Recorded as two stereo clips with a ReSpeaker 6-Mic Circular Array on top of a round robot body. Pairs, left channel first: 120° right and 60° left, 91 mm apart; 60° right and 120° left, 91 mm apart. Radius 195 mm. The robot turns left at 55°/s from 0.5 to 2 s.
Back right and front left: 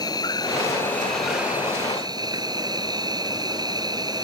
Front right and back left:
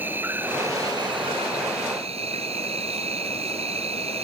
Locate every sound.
0.0 s an insect: 170° right; by 4.2 s 110° left